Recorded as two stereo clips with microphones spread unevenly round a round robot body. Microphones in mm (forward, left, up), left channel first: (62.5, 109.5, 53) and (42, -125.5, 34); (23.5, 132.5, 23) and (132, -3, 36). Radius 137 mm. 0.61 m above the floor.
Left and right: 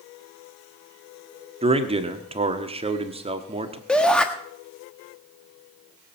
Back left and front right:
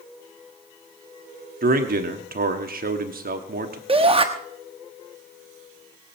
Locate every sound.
1.6 s a man speaking: 40° right, 1.4 m
3.9 s a shout: 5° right, 1.2 m